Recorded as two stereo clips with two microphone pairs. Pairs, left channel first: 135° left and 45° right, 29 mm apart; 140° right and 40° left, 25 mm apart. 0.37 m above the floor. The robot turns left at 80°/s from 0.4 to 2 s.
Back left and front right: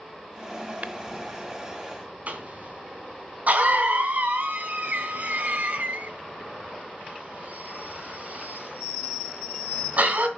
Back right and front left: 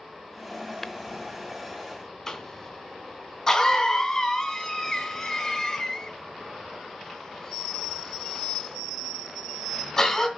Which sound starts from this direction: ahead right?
Tapping, at 0.8 s.